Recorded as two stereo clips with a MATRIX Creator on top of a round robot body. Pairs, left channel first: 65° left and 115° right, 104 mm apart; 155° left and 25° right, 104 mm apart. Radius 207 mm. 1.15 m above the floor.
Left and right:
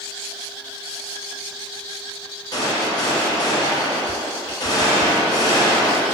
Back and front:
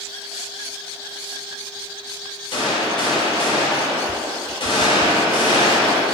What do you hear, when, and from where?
2.5 s a gunshot: 120° left, 1.0 m